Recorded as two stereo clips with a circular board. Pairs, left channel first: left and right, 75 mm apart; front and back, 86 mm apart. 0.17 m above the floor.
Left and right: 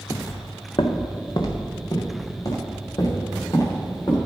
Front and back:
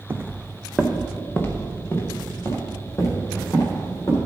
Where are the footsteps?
130° left, 0.7 m; by 4.2 s 55° left, 5.5 m.